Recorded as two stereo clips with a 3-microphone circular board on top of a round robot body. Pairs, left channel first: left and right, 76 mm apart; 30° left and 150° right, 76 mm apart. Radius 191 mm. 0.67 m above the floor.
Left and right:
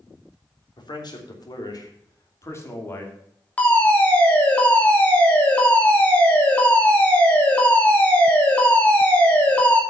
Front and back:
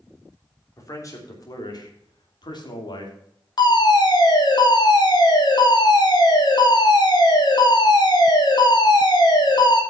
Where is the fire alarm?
20° left, 3 m.